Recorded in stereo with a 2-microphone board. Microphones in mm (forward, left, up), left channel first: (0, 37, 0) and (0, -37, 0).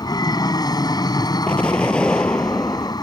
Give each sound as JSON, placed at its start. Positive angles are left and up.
{"t": 0.0, "sound": "an aircraft", "side_deg": 60}
{"t": 1.5, "sound": "an explosion", "side_deg": 15}